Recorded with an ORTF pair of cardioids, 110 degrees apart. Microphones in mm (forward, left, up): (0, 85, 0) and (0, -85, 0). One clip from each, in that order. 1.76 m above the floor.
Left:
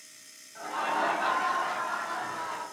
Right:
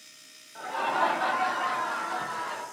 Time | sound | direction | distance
0.6 | laughter | 20° right | 1.4 m